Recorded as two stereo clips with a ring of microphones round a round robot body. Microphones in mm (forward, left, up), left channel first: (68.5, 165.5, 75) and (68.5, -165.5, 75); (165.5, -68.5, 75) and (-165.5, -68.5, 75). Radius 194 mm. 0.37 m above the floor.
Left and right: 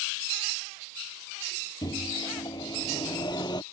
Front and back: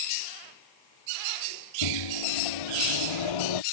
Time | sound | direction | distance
1.8 | a microwave | 10° left | ?